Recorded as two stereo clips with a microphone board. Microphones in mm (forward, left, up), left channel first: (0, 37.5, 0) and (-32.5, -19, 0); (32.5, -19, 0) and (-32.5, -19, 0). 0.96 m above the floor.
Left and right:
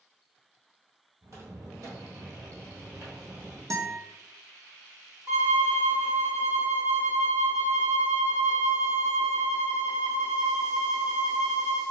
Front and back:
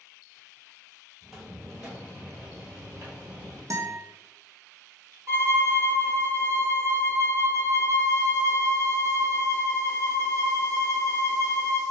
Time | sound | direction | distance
1.2 | footsteps | 90° right | 1.8 m
3.7 | a guitar | 150° right | 0.6 m
5.3 | a violin | 155° right | 1.0 m